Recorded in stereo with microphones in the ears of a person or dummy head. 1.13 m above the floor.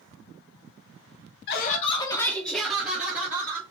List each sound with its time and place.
1.5 s laughter: 60° left (ahead or behind), 0.6 m; by 3.6 s 15° right (ahead or behind), 1.7 m